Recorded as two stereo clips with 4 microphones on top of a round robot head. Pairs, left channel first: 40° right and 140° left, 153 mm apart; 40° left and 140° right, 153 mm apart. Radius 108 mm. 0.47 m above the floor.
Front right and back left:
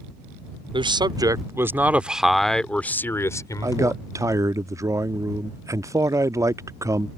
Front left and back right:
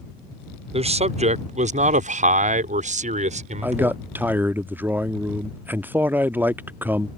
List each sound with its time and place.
0.7 s a man speaking: 175° right; by 4.0 s 100° right
3.6 s a man speaking: 165° left